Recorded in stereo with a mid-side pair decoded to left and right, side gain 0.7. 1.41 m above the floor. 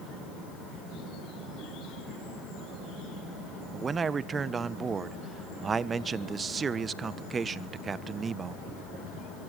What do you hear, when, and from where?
3.7 s a man speaking: 30° right, 1.3 m